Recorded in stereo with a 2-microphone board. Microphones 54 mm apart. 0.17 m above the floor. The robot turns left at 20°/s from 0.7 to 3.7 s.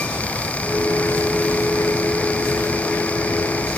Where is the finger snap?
No finger snap in this recording.